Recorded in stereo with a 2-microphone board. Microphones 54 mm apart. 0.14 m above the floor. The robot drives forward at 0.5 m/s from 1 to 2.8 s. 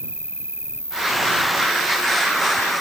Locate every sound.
0.0 s an insect: 40° right (ahead or behind)